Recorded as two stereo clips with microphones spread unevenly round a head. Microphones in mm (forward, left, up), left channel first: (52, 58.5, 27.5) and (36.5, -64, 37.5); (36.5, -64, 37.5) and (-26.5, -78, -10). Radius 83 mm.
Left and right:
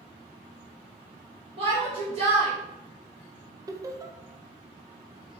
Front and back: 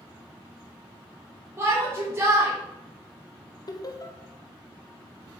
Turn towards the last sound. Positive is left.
turn(degrees=-30)